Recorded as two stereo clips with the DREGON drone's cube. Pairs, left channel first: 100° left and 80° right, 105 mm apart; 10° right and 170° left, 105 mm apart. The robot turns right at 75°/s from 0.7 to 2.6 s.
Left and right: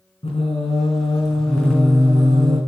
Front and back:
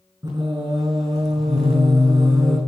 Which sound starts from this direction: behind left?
Singing, at 0.2 s.